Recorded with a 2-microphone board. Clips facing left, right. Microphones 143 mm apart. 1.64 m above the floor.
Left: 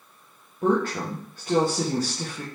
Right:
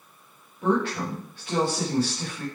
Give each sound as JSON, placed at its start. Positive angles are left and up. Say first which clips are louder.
{"t": 0.6, "sound": "a woman speaking", "louder": "left 1 dB", "side_deg": 40, "distance_m": 0.7}